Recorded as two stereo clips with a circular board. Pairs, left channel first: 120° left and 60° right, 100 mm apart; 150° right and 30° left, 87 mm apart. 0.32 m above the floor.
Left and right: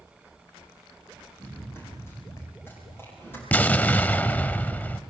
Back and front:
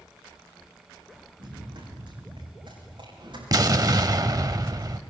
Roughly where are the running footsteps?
Ahead left.